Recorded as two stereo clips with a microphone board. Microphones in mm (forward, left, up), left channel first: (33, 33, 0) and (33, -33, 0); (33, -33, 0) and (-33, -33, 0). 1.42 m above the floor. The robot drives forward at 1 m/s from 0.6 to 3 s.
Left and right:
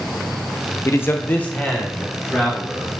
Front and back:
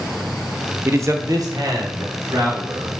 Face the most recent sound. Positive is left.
turn(degrees=170)